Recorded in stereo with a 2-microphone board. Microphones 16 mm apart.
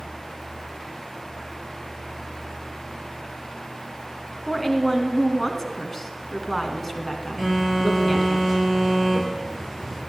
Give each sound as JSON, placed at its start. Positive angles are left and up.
{"t": 4.5, "sound": "a woman speaking", "side_deg": 20, "distance_m": 1.5}
{"t": 7.4, "sound": "a phone buzzing", "side_deg": 15, "distance_m": 4.5}